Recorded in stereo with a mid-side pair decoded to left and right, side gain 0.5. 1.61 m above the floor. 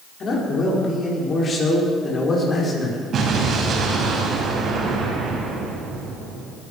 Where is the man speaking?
45° left, 4.5 m; by 3.0 s 30° left, 5.5 m.